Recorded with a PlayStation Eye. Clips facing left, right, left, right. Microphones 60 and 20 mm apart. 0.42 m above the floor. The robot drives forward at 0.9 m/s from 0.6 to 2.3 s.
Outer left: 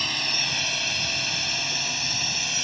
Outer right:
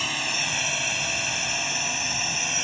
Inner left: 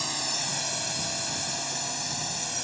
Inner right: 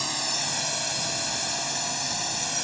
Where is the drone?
10° right (ahead or behind); by 2.6 s 20° right (ahead or behind).